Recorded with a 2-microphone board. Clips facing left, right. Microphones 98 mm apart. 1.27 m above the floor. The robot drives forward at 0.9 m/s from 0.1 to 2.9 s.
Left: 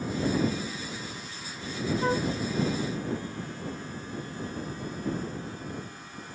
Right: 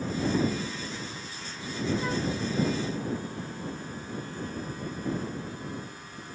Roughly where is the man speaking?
No man speaking in this recording.